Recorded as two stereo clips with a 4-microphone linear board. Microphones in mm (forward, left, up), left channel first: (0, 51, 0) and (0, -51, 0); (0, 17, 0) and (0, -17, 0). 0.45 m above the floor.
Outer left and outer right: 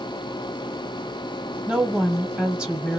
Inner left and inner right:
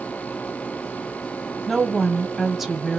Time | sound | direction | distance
1.7 | a woman speaking | 5° right (ahead or behind) | 1.3 m